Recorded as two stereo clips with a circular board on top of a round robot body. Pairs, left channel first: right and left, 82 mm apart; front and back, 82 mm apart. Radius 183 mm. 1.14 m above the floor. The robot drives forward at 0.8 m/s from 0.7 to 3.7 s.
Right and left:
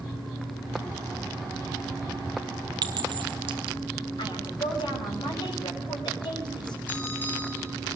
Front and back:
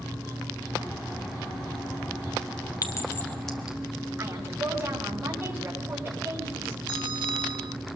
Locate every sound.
2.8 s a clink: 50° left, 1.0 m; by 3.8 s 100° left, 0.9 m
4.2 s a woman speaking: 115° right, 6 m
6.9 s a bell: 155° right, 2.0 m